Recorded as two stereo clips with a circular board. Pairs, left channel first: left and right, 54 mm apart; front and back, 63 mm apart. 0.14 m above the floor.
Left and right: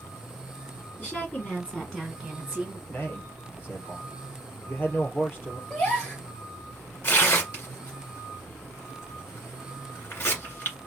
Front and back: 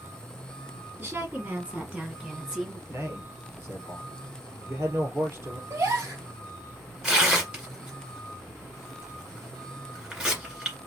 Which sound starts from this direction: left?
Tearing paper, at 7.0 s.